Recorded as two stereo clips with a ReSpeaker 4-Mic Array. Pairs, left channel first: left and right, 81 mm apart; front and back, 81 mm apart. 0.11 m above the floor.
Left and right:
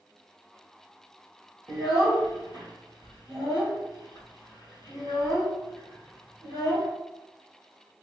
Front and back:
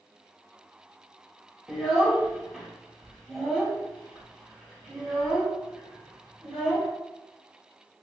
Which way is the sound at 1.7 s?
90° right.